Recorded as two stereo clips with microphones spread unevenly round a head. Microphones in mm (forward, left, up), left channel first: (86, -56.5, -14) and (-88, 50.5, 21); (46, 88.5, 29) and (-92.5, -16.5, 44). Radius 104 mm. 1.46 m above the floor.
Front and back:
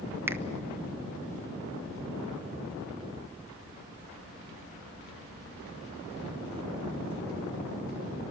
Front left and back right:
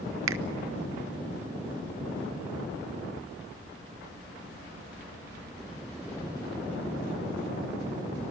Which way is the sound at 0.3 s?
135° right.